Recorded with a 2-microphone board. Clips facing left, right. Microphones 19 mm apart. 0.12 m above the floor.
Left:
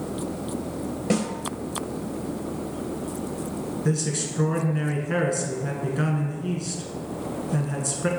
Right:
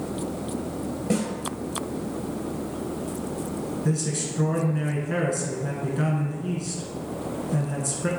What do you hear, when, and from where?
1.1 s a snare drum: 30° left (ahead or behind), 1.8 m
3.9 s a man speaking: 15° left (ahead or behind), 1.1 m